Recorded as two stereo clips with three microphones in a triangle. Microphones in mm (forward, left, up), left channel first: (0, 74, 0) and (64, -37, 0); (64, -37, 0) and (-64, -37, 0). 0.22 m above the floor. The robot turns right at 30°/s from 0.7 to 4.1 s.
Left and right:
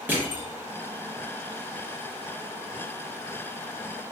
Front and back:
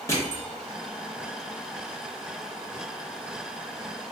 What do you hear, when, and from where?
0.1 s crushing: 5° right, 1.1 m